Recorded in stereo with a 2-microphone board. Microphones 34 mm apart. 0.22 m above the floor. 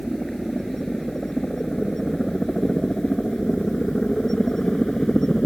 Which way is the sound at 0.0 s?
Centre (ahead or behind).